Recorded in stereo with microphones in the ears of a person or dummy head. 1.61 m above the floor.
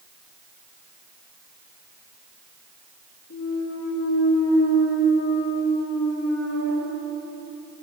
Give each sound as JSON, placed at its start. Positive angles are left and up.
{"t": 3.3, "sound": "a clunk", "side_deg": 70, "distance_m": 3.0}